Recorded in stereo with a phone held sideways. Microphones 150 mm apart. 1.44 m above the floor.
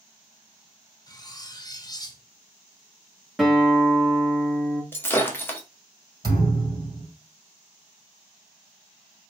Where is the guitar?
Centre (ahead or behind), 1.3 m.